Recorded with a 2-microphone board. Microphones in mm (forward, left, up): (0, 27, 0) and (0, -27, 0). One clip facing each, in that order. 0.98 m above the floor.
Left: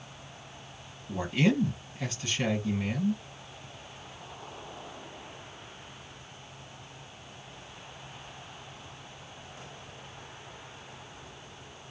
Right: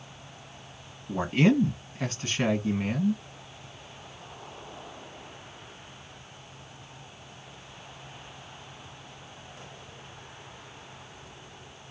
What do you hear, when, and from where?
1.1 s a man speaking: 45° right (ahead or behind), 1.4 m